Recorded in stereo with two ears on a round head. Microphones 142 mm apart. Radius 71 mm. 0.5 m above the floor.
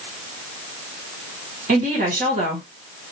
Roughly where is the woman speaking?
Right.